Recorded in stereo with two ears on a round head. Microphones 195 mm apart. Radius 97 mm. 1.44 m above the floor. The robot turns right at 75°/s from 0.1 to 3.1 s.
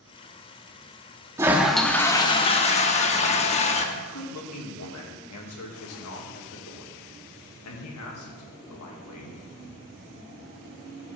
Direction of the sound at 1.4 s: 25° right.